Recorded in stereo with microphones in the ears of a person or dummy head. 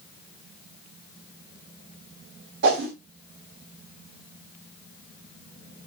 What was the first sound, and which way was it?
A whoosh, 60° right (ahead or behind).